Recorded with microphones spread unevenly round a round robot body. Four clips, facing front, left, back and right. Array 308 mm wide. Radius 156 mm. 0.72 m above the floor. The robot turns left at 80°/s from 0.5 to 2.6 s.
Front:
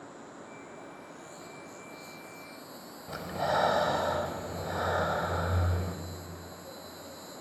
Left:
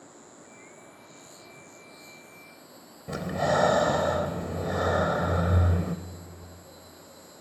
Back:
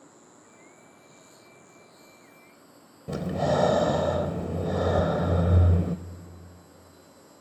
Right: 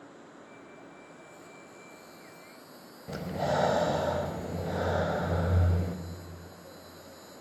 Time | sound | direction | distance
0.0 | an insect | 155° left | 2.5 m
3.1 | breathing | 165° left | 0.7 m